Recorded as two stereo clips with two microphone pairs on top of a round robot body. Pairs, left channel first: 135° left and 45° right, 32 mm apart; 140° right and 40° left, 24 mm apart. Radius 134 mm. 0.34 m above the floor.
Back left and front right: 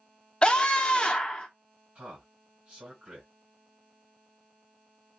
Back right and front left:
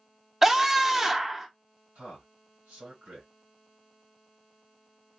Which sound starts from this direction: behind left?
A scream, at 0.4 s.